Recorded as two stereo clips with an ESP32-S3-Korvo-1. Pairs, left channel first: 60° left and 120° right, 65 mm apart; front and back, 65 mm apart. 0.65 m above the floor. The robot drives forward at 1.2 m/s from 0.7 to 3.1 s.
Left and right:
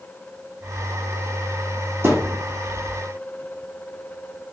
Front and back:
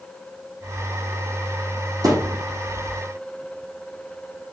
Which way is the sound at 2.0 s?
170° right.